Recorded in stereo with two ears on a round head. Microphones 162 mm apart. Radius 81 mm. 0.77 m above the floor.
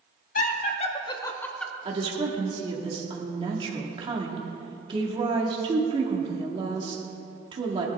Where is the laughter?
50° left (ahead or behind), 1.7 m; by 1.7 s centre (ahead or behind), 1.5 m.